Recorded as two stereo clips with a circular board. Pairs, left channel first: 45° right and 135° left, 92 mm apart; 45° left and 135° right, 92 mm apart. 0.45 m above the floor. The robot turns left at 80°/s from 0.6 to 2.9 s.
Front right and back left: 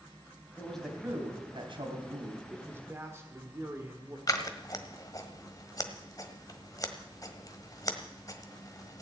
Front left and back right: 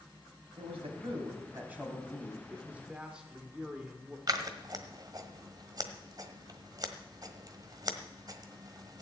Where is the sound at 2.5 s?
175° right, 1.5 m; by 4.2 s 155° left, 1.5 m.